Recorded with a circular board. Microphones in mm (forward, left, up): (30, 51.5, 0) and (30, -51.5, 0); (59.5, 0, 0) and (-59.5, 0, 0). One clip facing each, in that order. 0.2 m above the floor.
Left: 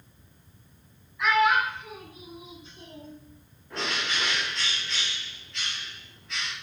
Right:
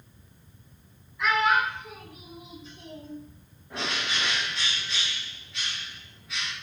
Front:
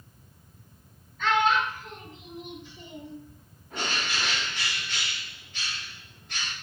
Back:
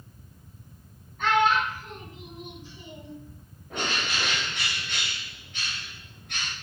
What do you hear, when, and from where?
1.2 s a child speaking: straight behind, 1.6 m; by 3.1 s 125° left, 1.3 m
3.7 s a bird: 170° right, 1.8 m